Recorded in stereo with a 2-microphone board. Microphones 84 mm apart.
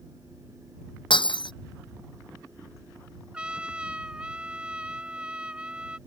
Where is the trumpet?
15° right (ahead or behind).